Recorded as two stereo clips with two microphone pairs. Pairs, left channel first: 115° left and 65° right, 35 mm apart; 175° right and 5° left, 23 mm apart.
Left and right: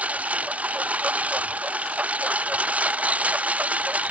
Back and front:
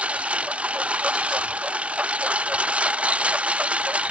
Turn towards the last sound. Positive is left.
turn(degrees=-15)